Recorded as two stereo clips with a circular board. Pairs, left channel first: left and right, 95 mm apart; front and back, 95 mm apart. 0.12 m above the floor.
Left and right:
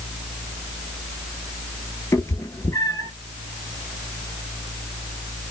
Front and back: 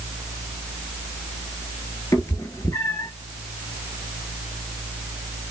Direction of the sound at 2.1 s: 45° left.